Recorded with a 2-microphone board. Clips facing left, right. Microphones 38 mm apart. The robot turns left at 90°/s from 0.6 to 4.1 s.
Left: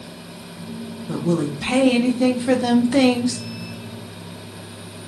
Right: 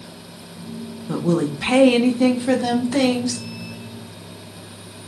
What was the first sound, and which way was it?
A woman speaking, 15° right (ahead or behind).